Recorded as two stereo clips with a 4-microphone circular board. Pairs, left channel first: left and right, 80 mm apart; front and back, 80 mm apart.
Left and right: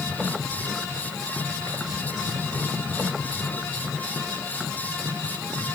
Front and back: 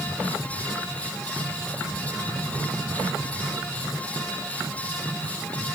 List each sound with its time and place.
Only background noise.